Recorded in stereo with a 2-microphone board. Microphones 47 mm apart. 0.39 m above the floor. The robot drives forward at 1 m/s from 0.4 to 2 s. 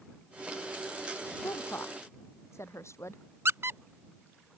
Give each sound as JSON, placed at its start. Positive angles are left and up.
{"t": 1.4, "sound": "a woman speaking", "side_deg": 80}
{"t": 3.5, "sound": "a squeak", "side_deg": -65}